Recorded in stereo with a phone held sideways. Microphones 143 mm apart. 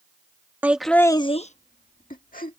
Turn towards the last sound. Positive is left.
turn(degrees=75)  # may be behind; listen again after turning